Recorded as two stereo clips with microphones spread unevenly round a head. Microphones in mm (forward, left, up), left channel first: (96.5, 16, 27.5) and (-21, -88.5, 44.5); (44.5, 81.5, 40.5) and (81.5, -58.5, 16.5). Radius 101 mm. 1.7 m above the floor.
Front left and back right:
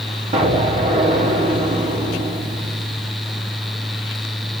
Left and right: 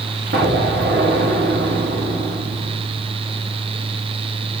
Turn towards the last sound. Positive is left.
turn(degrees=-115)